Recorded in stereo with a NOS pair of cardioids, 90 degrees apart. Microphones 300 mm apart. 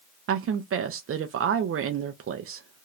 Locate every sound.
0.3 s a woman speaking: 45° right, 0.7 m